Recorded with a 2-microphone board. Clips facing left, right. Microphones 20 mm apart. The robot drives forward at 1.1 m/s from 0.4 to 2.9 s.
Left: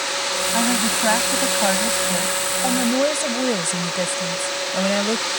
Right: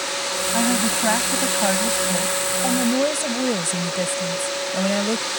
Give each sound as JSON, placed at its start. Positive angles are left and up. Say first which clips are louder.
{"t": 0.5, "sound": "a woman speaking", "louder": "even", "side_deg": 10}